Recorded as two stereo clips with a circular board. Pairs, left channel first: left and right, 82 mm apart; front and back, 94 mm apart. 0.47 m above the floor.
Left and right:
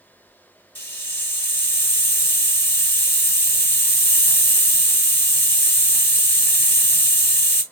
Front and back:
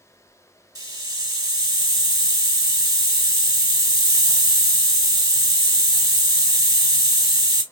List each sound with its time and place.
0.8 s a hiss: 145° left, 1.0 m